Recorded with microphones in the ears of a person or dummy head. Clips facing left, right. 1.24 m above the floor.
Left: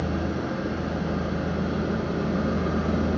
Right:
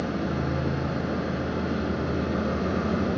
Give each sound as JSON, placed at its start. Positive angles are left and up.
{"t": 0.0, "sound": "an engine running", "side_deg": 55, "distance_m": 1.9}